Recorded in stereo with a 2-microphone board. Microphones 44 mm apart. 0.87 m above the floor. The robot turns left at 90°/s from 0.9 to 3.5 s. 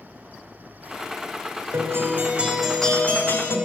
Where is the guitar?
95° right, 2.0 m; by 3.6 s 105° left, 2.0 m.